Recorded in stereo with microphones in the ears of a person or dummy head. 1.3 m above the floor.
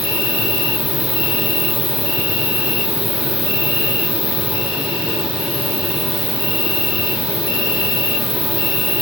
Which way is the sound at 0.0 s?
30° right (ahead or behind).